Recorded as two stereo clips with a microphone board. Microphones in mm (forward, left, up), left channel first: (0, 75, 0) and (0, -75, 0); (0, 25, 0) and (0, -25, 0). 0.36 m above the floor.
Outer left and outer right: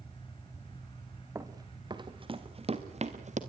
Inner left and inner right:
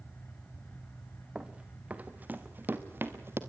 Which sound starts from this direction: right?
Running footsteps, at 1.4 s.